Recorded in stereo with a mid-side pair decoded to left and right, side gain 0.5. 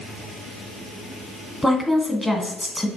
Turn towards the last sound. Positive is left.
turn(degrees=0)